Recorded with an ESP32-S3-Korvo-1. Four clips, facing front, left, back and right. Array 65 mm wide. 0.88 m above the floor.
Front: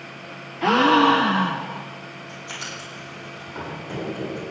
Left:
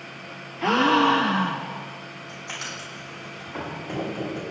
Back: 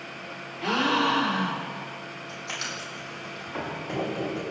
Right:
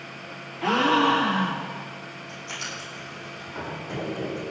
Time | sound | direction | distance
0.6 | a gasp | 20° left | 1.0 m
2.3 | writing | 135° left | 8.5 m